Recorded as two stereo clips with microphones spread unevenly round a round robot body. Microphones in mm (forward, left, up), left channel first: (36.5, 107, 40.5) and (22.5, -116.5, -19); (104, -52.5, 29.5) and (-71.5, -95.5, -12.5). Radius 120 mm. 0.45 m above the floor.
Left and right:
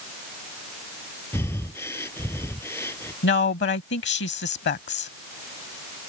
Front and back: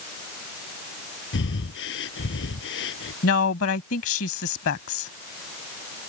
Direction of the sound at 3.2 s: 45° left.